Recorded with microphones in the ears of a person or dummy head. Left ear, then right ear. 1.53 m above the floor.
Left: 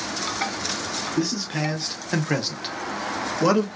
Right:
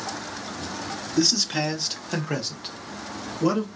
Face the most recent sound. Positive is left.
turn(degrees=35)  # may be behind; listen again after turning